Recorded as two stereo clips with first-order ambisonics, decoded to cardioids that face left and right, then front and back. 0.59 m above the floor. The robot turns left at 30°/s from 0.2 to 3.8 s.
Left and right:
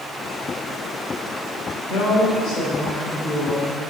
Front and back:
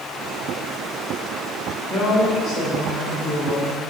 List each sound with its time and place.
1.9 s a woman speaking: 60° left, 2.5 m; by 3.8 s 5° left, 2.5 m